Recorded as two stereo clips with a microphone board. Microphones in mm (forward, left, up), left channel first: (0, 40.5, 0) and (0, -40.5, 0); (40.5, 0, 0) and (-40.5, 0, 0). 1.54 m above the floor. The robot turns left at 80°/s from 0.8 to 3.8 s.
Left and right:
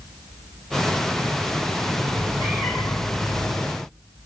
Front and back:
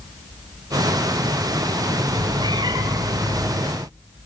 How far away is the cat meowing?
About 5 m.